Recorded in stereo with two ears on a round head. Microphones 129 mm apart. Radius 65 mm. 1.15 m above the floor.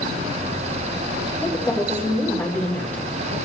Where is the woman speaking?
15° left (ahead or behind), 3 m.